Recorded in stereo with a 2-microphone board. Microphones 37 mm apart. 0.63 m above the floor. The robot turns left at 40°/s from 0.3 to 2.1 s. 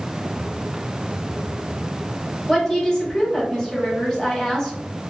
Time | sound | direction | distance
2.5 | a woman speaking | 20° left (ahead or behind) | 1.3 m